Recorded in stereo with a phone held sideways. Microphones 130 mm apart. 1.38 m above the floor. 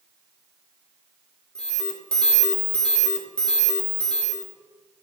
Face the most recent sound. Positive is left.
turn(degrees=5)  # may be behind; listen again after turning